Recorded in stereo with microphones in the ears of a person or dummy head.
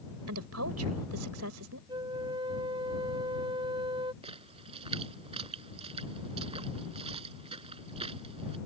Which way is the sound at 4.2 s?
30° right (ahead or behind).